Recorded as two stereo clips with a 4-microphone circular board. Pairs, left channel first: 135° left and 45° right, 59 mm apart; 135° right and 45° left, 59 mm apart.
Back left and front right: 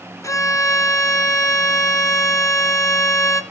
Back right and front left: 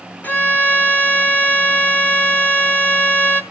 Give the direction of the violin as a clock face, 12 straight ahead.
7 o'clock.